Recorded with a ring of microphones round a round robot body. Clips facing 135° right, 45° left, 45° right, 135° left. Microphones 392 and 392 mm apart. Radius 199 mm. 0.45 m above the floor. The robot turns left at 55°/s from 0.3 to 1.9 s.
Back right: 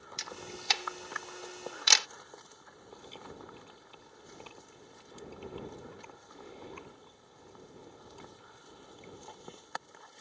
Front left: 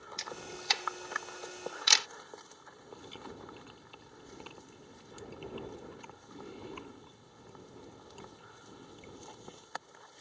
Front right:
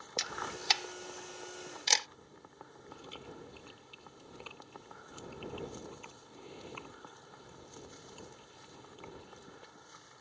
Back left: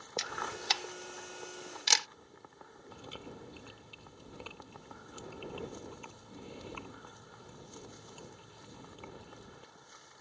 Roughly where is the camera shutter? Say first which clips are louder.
Even, back left 1 dB; right.